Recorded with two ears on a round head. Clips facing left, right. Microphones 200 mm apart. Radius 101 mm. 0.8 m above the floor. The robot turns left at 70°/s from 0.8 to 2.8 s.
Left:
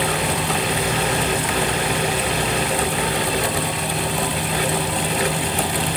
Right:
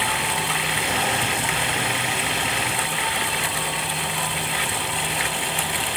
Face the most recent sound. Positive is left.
No sound to turn to.